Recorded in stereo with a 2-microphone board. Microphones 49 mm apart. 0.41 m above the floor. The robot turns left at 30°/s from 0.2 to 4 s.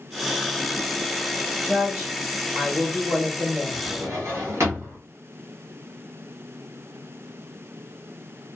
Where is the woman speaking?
5° right, 1.6 m; by 3.8 s 75° right, 1.6 m.